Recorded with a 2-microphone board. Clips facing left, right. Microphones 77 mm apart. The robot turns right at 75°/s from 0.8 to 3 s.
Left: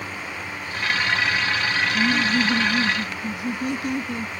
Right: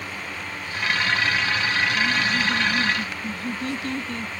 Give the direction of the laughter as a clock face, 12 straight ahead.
9 o'clock.